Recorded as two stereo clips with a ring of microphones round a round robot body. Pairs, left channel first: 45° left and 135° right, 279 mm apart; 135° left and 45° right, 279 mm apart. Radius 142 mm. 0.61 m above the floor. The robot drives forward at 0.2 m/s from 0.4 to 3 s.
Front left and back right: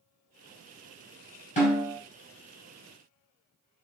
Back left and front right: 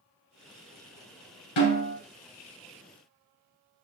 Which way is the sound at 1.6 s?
110° left.